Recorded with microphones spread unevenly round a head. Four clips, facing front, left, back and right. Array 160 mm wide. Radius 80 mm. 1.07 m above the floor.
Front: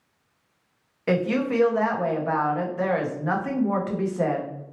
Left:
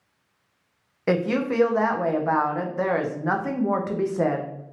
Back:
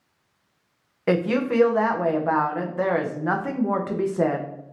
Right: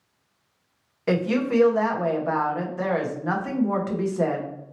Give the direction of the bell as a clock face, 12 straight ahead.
I don't hear a bell.